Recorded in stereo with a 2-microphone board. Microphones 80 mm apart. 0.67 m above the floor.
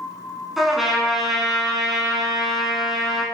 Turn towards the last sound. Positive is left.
turn(degrees=0)  # may be behind; listen again after turning